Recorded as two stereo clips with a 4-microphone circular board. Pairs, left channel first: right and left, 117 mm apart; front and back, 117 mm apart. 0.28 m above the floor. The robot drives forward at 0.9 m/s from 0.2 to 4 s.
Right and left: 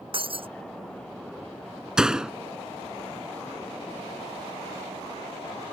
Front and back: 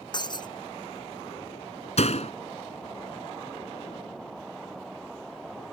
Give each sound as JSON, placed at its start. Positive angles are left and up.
{"t": 0.1, "sound": "breaking glass", "azimuth_deg": 50}
{"t": 2.0, "sound": "a door slam", "azimuth_deg": 5}